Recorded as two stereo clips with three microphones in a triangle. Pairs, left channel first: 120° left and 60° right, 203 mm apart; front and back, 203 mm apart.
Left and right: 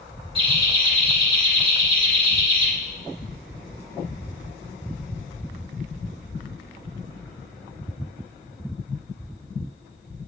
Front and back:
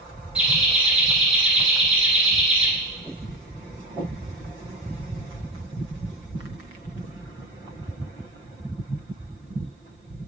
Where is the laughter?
100° right, 1.2 m.